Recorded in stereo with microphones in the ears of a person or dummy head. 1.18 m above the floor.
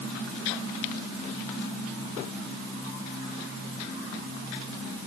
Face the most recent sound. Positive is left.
No sound to turn to.